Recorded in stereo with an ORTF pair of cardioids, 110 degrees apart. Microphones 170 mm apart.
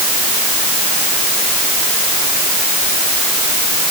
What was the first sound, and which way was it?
Only background noise.